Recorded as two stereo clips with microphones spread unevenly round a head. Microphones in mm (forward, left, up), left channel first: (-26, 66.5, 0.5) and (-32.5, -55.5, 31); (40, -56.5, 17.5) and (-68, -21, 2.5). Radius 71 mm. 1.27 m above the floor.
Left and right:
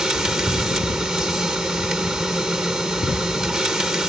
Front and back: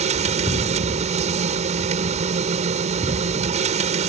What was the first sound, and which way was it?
A machine running, 175° right.